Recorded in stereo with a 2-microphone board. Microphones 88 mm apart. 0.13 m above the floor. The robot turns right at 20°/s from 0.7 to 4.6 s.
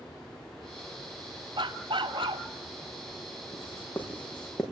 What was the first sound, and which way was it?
A dog barking, 70° right (ahead or behind).